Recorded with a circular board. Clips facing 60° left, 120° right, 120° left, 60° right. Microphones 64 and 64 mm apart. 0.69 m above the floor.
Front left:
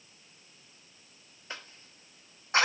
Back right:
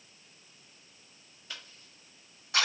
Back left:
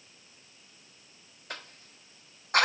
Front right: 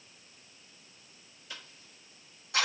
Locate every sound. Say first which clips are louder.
1.5 s a cough: front left 4 dB, back left 5 dB; 110° left, 0.9 m